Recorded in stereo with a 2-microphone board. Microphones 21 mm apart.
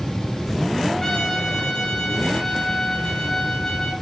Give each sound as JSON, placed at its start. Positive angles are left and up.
{"t": 1.0, "sound": "a trumpet", "side_deg": 35, "distance_m": 6.0}